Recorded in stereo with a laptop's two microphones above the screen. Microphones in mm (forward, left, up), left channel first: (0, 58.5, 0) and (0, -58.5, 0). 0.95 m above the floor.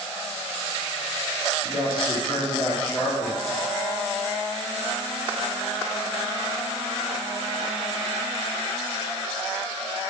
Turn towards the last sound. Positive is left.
turn(degrees=10)  # may be behind; listen again after turning